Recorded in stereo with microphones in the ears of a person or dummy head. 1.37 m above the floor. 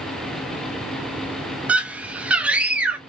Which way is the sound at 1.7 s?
5° right (ahead or behind).